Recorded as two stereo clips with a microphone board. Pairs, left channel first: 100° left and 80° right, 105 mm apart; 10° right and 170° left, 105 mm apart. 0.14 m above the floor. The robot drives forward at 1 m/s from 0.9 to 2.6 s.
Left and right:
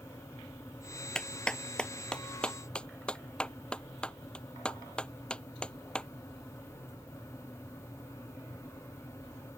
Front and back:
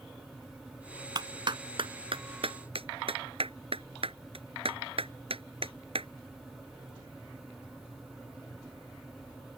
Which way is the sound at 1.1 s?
Straight behind.